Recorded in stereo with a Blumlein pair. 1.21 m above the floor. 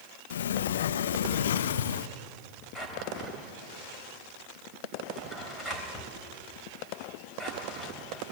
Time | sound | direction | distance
0.3 | a sliding door | 60° left | 0.6 m
2.8 | a drawer | 5° left | 3.5 m